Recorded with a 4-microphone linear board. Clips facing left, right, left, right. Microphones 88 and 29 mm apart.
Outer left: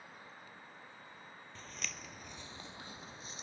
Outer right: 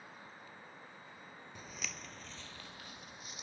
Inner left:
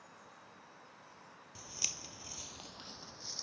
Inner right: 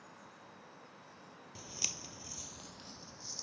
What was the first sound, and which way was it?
Footsteps, 10° right (ahead or behind).